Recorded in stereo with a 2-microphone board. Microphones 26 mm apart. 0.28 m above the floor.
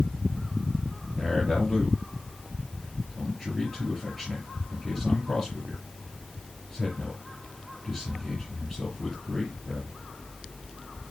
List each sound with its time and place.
1.2 s a man speaking: 5° right (ahead or behind), 5.5 m